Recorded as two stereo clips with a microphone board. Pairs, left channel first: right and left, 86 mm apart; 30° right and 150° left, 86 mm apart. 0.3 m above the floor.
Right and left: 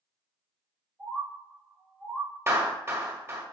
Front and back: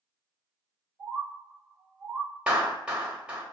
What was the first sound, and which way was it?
A bird, 10° right.